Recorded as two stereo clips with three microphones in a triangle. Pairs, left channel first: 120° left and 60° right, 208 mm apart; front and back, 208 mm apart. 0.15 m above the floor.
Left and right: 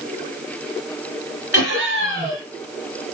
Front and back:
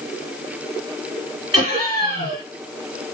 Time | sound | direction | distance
1.5 | laughter | 135° right | 1.9 m